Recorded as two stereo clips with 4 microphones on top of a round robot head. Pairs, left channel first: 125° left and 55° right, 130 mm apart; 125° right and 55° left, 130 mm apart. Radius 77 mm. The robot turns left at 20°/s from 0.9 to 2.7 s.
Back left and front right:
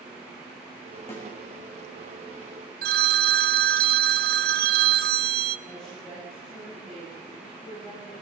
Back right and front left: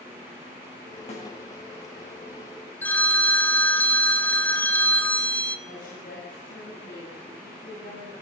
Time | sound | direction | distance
1.1 | a snare drum | 165° right | 8 m
2.8 | a phone ringing | 45° right | 1.0 m
5.7 | a woman speaking | 150° right | 8.5 m